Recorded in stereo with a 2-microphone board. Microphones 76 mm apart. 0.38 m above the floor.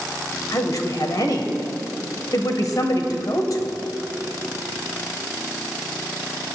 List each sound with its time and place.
0.5 s a woman speaking: 55° left (ahead or behind), 1.3 m